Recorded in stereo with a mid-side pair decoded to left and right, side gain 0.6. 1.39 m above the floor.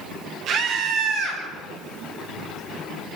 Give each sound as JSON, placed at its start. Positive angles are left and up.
{"t": 0.5, "sound": "a scream", "azimuth_deg": -55, "distance_m": 9.5}